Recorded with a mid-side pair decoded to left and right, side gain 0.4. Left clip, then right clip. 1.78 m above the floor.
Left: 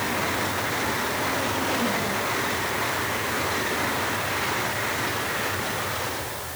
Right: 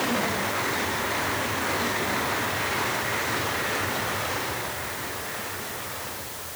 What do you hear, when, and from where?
Only background noise.